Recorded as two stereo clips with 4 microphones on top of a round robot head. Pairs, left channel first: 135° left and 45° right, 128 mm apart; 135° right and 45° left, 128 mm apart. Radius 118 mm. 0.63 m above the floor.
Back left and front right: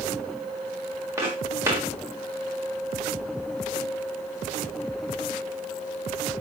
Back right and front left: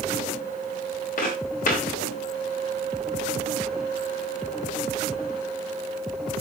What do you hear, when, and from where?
1.2 s footsteps: 115° right, 5.5 m